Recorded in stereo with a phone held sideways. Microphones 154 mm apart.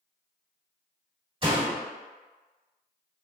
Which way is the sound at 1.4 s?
35° right (ahead or behind).